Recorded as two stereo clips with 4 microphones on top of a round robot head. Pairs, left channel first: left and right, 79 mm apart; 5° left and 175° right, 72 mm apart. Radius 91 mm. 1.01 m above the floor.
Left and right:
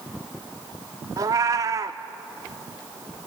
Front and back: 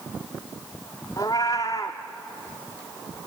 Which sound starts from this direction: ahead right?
A cat meowing, at 1.2 s.